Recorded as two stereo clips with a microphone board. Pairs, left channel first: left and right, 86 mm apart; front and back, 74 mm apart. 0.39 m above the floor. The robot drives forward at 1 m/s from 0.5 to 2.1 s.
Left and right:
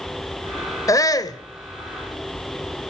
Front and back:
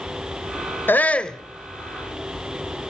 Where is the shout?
55° left, 1.3 m; by 1.4 s 80° left, 1.2 m.